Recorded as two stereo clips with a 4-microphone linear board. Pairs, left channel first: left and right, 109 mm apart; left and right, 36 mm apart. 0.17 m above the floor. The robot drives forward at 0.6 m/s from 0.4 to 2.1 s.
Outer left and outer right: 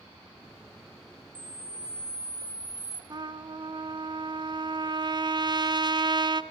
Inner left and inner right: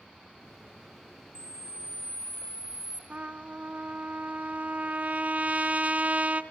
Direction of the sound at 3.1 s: 45° right (ahead or behind).